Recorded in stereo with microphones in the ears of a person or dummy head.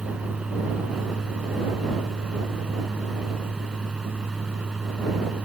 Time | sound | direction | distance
0.0 | a fan | 5° right (ahead or behind) | ?